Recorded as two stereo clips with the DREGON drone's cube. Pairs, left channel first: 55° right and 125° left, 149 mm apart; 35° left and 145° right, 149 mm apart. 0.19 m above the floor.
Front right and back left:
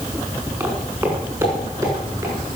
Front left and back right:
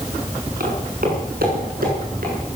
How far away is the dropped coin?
I don't hear a dropped coin.